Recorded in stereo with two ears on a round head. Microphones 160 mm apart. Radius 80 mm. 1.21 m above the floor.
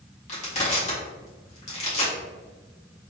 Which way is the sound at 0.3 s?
35° left (ahead or behind).